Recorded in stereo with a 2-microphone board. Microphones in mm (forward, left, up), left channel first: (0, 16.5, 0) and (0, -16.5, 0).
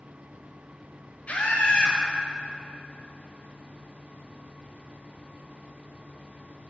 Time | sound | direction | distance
1.3 | a scream | 45° left (ahead or behind) | 6 m